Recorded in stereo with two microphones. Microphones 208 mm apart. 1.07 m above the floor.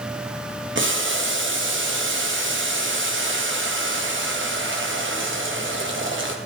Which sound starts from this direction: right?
Boiling, at 0.8 s.